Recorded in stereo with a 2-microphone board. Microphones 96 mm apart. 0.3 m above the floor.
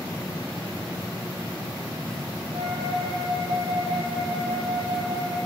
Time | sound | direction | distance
2.5 | a flute | 55° right (ahead or behind) | 3.5 m